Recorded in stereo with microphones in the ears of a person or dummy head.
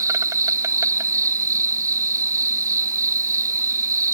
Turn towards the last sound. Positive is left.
turn(degrees=-20)  # may be behind; listen again after turning